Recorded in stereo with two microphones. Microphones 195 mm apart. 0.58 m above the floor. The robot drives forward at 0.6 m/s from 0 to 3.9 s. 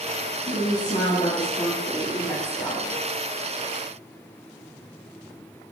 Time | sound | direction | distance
0.5 | a woman speaking | 40° left (ahead or behind) | 0.8 m